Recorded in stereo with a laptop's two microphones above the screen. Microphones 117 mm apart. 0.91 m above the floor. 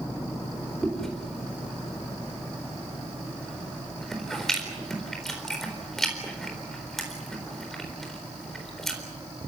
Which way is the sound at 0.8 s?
5° left (ahead or behind).